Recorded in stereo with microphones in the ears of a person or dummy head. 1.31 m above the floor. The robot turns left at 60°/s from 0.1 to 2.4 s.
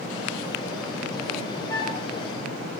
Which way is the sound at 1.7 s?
25° left (ahead or behind).